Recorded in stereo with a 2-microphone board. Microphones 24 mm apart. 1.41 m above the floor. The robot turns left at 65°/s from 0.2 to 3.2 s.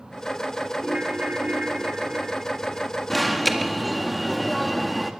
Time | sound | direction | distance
0.8 | a ringtone | 45° right | 3.5 m
3.1 | an alarm | 5° left (ahead or behind) | 1.8 m